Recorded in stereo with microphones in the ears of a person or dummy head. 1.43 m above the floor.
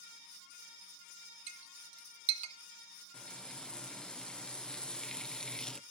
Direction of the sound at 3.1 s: 10° left (ahead or behind).